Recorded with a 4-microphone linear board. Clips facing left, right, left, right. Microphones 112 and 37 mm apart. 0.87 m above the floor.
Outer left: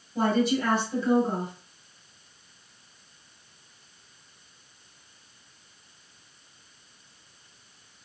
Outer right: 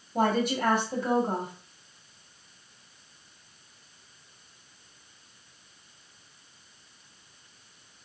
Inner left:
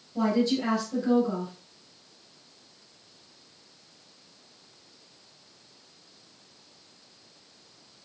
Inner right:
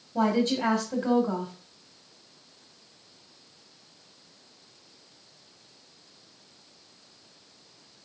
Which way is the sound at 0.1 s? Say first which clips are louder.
Outer left 1 dB, even; 55° right (ahead or behind).